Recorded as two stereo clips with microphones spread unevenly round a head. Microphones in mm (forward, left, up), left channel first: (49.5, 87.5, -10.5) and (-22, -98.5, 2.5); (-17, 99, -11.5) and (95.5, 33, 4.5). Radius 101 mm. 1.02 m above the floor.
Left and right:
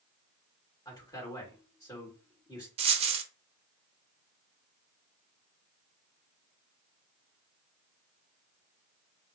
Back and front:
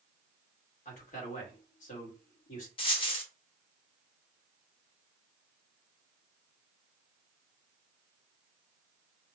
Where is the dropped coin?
160° right, 0.5 m.